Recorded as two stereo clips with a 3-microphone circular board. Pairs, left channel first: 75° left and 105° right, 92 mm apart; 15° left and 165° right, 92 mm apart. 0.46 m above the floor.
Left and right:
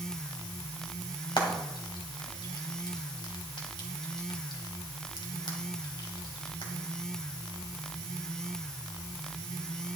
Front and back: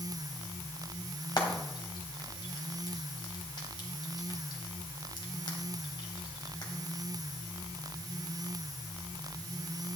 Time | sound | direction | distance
1.4 | frying | 50° left | 2 m